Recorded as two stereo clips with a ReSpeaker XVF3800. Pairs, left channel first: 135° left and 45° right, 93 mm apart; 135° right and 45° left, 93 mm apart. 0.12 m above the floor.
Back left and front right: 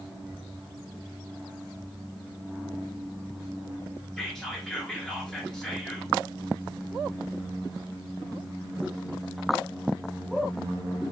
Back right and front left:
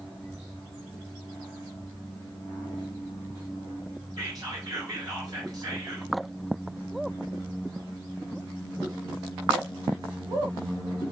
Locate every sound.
4.2 s whispering: 50° left, 1.5 m